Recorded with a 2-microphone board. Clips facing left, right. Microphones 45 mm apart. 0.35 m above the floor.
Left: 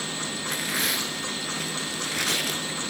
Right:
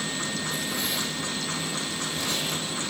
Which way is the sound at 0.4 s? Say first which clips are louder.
Left 2 dB; 75° left (ahead or behind).